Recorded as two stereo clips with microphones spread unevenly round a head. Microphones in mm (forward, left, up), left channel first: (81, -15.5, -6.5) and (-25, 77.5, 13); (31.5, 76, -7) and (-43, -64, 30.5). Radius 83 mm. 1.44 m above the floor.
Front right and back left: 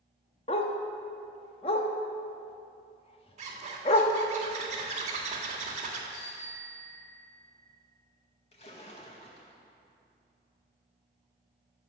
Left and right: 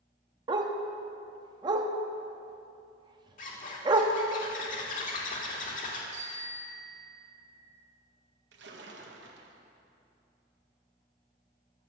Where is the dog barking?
85° right, 1.0 m.